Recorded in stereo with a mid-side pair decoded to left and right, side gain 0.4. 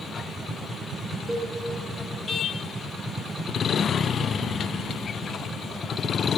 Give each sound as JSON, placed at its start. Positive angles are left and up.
{"t": 1.3, "sound": "a cowbell", "azimuth_deg": -15, "distance_m": 3.0}